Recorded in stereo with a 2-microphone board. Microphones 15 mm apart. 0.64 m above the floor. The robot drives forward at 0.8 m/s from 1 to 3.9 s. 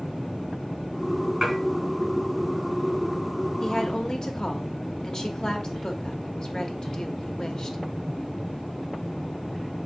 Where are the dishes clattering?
5° right (ahead or behind), 4 m.